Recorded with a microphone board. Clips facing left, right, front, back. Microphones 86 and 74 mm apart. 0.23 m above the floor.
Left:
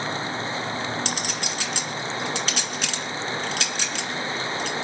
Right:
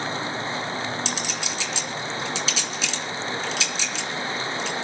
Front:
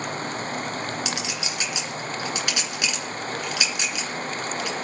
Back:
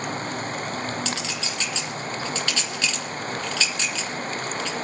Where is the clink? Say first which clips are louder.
Even, even; 70° left, 2 m.